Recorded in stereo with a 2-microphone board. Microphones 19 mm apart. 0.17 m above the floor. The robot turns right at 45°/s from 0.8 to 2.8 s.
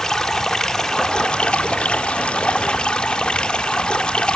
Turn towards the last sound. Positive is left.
turn(degrees=110)